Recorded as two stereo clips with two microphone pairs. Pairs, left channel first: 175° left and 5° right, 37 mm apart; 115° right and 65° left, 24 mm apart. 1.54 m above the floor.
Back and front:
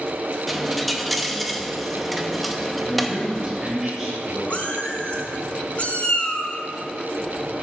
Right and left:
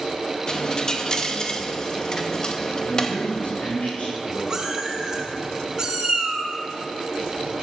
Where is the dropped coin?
100° right, 0.9 m.